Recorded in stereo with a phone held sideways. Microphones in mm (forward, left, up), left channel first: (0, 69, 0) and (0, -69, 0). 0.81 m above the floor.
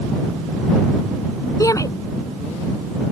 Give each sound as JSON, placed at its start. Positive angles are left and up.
{"t": 1.6, "sound": "a shout", "side_deg": 25}